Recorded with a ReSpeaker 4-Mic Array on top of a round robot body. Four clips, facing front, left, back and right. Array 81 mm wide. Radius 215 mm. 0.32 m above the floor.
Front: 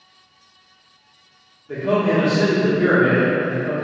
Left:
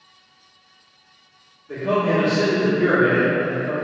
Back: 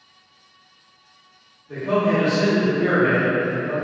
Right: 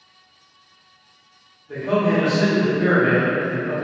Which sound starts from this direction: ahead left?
A man speaking, at 1.7 s.